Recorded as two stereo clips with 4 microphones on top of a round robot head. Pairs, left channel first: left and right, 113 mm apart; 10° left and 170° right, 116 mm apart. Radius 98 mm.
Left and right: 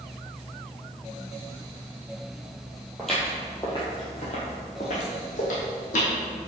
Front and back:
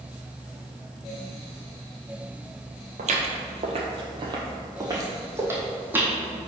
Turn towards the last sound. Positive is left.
turn(degrees=110)